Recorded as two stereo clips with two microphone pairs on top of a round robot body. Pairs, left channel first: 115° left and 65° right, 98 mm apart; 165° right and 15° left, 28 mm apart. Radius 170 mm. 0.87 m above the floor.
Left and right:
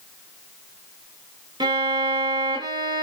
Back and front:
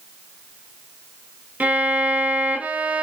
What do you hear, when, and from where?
1.6 s a violin: 25° right, 1.0 m